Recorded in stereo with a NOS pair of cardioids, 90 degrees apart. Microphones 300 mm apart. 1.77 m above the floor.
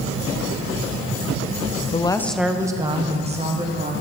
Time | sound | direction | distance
1.9 | a woman speaking | 25° left | 0.6 m